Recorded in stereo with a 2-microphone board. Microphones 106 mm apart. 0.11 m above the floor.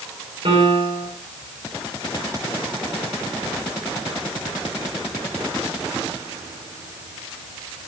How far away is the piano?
About 10 m.